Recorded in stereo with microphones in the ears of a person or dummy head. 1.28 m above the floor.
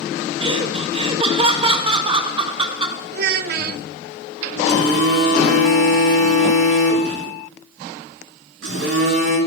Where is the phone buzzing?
85° right, 8.5 m.